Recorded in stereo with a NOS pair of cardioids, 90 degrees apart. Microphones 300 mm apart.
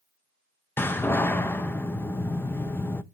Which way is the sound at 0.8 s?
5° left.